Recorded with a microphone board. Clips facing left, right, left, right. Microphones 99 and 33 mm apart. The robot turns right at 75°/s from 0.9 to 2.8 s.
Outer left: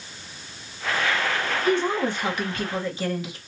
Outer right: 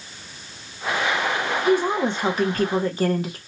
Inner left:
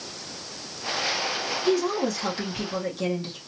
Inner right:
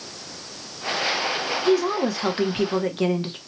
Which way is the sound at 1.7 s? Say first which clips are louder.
Outer right 3 dB, inner right 3 dB; 175° right.